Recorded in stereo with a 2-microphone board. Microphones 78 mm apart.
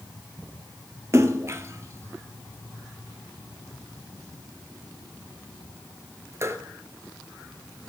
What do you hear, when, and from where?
1.1 s a splash: 35° right (ahead or behind), 0.7 m